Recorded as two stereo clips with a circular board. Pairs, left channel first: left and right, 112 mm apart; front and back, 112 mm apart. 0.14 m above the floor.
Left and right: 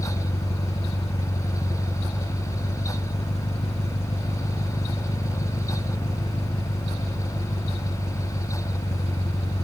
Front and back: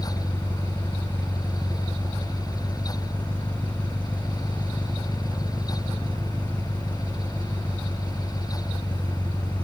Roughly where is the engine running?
Left.